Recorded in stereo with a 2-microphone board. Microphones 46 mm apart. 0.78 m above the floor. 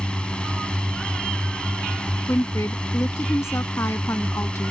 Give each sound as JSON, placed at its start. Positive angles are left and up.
{"t": 0.0, "sound": "a drone", "side_deg": 20}
{"t": 2.3, "sound": "a woman speaking", "side_deg": 75}